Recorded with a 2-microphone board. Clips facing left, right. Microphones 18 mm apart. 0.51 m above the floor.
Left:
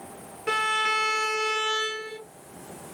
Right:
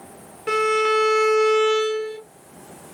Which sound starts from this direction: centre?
A violin, at 0.5 s.